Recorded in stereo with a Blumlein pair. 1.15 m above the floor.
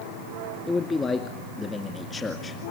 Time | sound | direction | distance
0.7 | a man speaking | 15° left | 2 m